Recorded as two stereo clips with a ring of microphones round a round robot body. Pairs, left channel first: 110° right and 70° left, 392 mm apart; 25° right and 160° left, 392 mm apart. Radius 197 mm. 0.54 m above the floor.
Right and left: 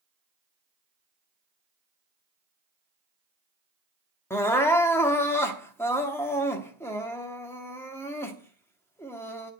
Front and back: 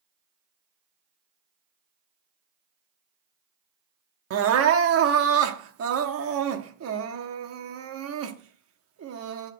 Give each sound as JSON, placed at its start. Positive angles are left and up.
{"t": 4.3, "sound": "crying", "azimuth_deg": 170, "distance_m": 0.9}